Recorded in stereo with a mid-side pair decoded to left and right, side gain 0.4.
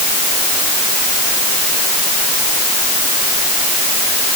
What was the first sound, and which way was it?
Only background noise.